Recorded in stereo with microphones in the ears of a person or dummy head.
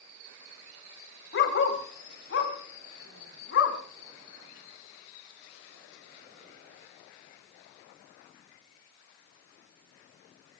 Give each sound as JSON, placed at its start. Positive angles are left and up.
{"t": 1.3, "sound": "a dog barking", "side_deg": 65, "distance_m": 2.0}